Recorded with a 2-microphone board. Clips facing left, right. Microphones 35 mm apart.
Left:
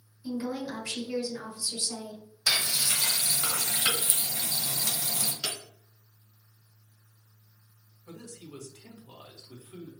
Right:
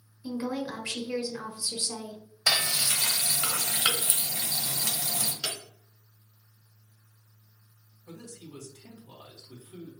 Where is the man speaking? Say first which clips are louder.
Even; 40° left (ahead or behind), 1.5 m.